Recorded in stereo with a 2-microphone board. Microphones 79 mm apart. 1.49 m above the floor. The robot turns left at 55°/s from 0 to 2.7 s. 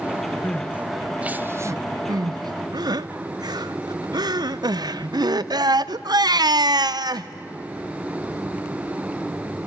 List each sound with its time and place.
0.4 s crying: 25° left (ahead or behind), 0.7 m; by 7.3 s 65° right (ahead or behind), 0.7 m